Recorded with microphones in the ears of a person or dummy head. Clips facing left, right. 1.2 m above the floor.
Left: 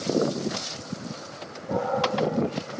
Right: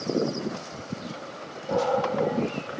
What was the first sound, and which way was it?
A dog barking, 50° right (ahead or behind).